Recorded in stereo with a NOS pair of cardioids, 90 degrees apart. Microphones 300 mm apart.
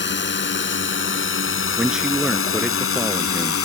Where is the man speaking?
Straight ahead.